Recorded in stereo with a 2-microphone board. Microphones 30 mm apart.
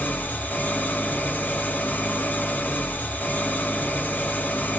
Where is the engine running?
65° left (ahead or behind), 0.7 m.